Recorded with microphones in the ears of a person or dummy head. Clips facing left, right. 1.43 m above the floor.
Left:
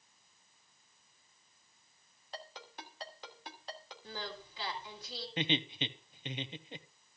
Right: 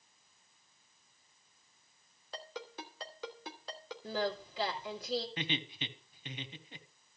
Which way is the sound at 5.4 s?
25° left (ahead or behind).